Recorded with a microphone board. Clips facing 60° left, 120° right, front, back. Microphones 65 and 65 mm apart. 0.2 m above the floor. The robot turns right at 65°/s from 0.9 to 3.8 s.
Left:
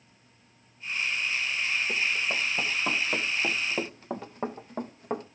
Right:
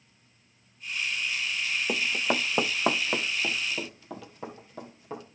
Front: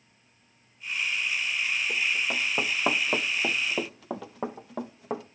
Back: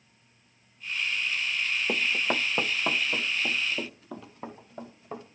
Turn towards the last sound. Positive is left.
turn(degrees=10)